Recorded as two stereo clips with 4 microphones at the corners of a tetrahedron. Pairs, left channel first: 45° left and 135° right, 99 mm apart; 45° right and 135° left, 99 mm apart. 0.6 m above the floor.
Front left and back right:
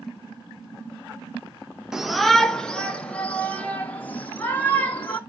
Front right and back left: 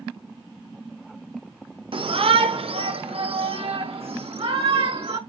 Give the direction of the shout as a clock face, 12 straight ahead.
7 o'clock.